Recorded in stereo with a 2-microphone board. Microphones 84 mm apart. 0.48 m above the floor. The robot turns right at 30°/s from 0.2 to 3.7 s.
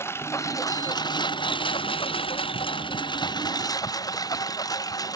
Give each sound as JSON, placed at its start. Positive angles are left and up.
{"t": 0.0, "sound": "a lawn mower", "side_deg": 30}